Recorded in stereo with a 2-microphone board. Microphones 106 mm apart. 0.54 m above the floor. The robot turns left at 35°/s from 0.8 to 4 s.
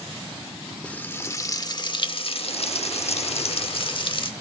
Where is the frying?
165° left, 0.8 m; by 4.3 s 55° left, 0.8 m.